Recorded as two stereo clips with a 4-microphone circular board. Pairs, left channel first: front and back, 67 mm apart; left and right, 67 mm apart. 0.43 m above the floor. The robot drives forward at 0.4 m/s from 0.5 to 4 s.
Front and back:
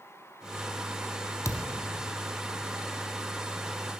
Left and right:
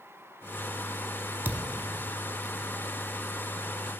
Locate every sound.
1.4 s a thud: 30° right, 0.9 m; by 1.8 s 35° right, 0.7 m